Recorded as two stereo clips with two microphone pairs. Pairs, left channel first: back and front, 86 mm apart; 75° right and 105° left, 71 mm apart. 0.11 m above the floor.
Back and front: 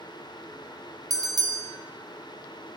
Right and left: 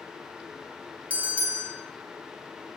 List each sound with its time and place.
1.1 s a bell: 40° left, 0.7 m